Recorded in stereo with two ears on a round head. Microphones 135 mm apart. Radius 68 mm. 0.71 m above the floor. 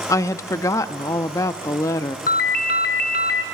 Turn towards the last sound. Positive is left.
turn(degrees=65)  # may be behind; listen again after turning